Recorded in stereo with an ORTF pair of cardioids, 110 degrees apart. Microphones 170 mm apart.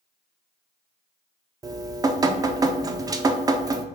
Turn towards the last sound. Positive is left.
turn(degrees=-20)